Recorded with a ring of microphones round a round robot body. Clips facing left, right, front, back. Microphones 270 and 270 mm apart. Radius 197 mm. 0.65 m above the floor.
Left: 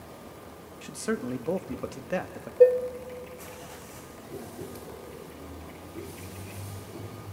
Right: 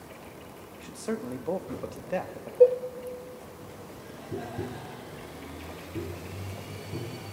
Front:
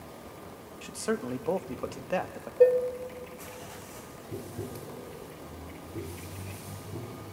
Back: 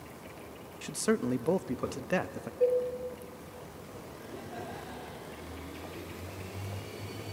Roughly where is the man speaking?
Behind left.